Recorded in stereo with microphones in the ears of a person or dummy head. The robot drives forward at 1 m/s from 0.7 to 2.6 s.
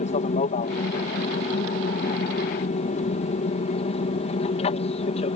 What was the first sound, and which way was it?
An aircraft, 40° left (ahead or behind).